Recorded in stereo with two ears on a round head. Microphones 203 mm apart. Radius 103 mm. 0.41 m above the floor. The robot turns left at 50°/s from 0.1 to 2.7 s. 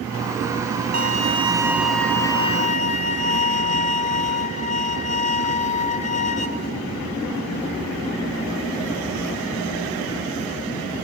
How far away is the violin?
About 1.7 m.